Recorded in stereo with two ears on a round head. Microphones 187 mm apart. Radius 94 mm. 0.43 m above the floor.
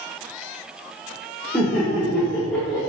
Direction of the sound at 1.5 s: Centre (ahead or behind).